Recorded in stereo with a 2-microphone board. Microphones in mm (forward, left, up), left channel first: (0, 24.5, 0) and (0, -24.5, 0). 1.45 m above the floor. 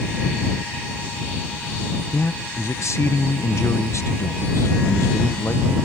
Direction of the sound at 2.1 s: 75° left (ahead or behind).